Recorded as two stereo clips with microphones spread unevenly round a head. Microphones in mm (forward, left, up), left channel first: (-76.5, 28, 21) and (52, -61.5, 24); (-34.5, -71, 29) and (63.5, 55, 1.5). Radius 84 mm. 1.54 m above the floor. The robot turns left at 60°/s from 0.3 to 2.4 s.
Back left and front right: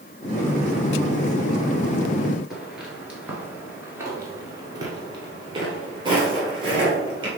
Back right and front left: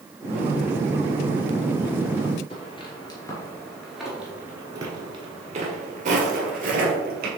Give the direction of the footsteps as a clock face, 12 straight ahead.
4 o'clock.